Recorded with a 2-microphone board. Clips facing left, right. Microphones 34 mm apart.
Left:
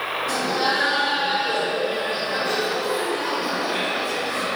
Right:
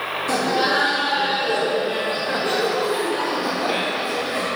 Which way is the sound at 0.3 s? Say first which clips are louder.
Right 4 dB; 65° right (ahead or behind).